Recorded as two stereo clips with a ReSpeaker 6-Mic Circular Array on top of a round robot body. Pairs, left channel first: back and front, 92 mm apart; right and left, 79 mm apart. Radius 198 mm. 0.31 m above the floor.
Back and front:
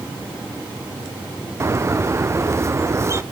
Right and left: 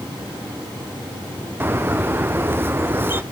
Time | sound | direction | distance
1.6 | a bird | 40° left | 1.0 m